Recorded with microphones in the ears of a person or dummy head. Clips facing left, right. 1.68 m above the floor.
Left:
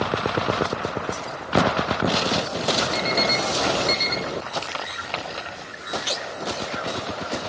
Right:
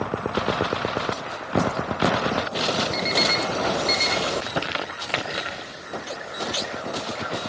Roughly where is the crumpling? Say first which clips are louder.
Right 2 dB; right.